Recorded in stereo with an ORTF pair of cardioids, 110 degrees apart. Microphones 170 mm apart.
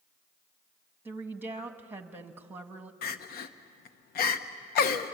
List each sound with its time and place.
1.1 s a woman speaking: 10° right, 1.8 m
3.0 s crying: 65° left, 1.1 m